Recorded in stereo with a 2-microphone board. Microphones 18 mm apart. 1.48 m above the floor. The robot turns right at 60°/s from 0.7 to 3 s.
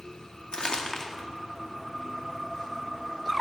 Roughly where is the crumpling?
Left.